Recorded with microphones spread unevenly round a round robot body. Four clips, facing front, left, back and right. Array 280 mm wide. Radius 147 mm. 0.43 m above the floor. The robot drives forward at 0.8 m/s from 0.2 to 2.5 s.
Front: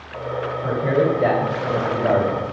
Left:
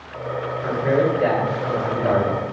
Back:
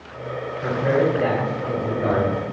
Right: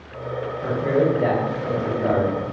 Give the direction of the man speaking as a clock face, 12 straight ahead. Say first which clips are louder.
Even, even; 5 o'clock.